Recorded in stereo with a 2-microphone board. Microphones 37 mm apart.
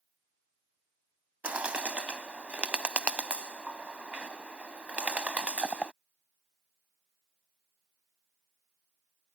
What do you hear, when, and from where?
1.4 s a bird: 35° right (ahead or behind)